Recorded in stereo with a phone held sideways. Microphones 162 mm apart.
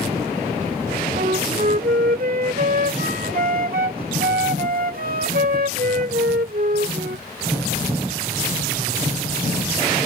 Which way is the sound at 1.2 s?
60° right (ahead or behind).